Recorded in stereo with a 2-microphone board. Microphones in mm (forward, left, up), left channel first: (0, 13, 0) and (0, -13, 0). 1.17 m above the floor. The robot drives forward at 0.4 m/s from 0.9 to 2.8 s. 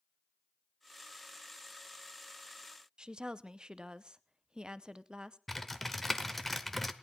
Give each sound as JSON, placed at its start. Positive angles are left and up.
{"t": 3.0, "sound": "a woman speaking", "side_deg": -35, "distance_m": 0.7}
{"t": 5.5, "sound": "typing on a keyboard", "side_deg": 5, "distance_m": 1.0}